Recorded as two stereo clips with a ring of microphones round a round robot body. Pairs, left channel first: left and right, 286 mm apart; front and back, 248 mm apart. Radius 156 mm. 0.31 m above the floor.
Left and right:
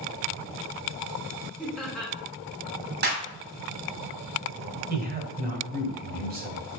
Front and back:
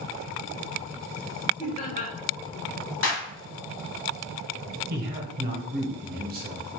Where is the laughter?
5° left, 1.1 m.